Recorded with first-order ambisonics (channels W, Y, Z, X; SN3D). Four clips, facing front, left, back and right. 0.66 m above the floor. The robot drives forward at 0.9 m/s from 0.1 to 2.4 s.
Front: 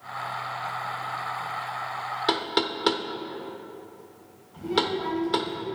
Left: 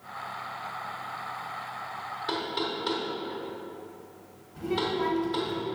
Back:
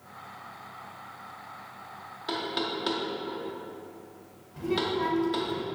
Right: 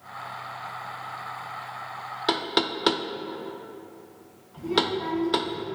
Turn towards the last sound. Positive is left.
turn(degrees=160)